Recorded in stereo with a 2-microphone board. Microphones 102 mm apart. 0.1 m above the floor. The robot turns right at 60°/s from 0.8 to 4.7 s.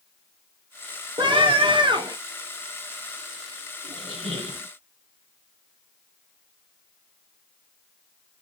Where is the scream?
115° right, 2 m; by 2.2 s 55° right, 2 m.